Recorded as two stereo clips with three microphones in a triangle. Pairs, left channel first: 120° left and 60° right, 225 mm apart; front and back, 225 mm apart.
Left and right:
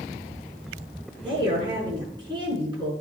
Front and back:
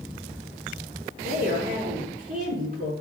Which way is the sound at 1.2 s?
130° right.